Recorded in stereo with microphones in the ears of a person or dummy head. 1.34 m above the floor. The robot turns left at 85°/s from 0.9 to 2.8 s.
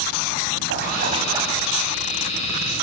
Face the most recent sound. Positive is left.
turn(degrees=75)